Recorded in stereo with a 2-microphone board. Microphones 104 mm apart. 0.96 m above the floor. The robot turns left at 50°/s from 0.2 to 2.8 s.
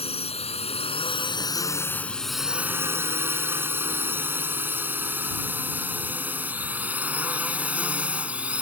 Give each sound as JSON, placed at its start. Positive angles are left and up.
{"t": 0.0, "sound": "a drone", "side_deg": 75}